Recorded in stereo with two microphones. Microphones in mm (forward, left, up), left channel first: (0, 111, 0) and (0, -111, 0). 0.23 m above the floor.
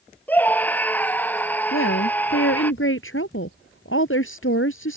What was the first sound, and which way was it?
A scream, 10° left (ahead or behind).